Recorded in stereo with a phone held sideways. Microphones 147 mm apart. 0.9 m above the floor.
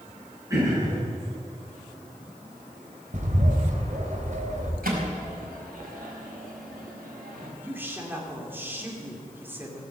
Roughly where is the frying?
I don't hear frying.